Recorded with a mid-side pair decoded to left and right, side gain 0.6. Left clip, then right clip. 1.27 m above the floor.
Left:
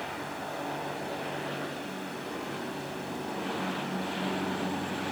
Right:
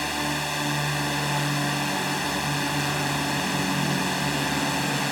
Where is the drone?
65° right.